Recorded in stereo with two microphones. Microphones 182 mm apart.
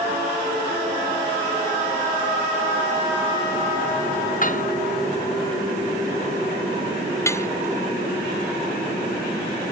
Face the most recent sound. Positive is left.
turn(degrees=15)  # may be behind; listen again after turning